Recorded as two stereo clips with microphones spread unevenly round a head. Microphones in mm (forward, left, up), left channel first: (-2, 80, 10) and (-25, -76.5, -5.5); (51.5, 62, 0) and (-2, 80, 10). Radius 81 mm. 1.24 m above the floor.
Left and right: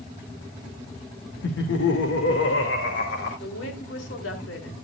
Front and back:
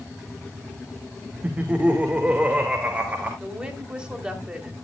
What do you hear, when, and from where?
1.4 s laughter: 95° left, 1.6 m
3.4 s a woman speaking: 90° left, 3.5 m